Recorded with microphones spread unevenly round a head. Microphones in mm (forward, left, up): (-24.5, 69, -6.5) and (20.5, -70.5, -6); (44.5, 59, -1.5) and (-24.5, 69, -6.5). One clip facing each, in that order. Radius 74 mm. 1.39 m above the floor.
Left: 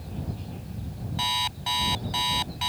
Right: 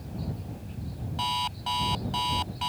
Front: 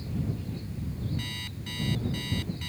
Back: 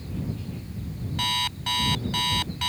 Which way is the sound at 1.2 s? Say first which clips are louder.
Even, back 10 dB; 170° right.